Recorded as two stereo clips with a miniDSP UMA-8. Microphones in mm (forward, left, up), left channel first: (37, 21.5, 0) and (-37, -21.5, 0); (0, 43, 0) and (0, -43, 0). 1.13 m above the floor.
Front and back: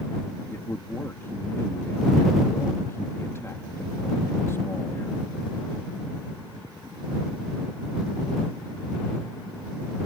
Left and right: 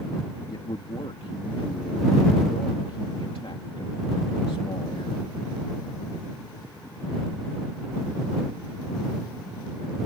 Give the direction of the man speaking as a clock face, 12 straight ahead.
9 o'clock.